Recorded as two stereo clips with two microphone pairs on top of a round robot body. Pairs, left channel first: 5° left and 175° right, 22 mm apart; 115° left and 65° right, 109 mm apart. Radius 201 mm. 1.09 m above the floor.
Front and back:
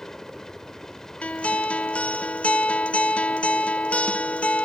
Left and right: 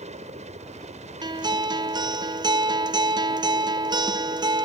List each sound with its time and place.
0.0 s a helicopter: 65° right
1.2 s a guitar: 15° right